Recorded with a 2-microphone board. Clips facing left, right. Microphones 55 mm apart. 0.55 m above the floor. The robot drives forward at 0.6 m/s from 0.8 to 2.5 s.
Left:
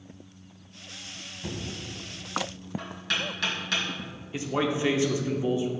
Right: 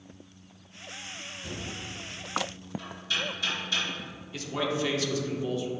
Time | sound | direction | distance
1.4 | knocking | 75° left (ahead or behind) | 2.5 m
4.3 | a man speaking | 25° left (ahead or behind) | 0.9 m